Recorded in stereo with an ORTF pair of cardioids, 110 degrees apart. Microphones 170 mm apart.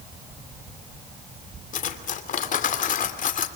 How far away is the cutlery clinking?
About 2.5 m.